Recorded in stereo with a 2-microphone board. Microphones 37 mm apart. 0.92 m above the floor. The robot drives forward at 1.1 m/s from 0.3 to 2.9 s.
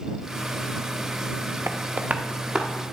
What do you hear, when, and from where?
1.7 s tapping: 80° right, 0.5 m; by 2.7 s 25° right (ahead or behind), 1.3 m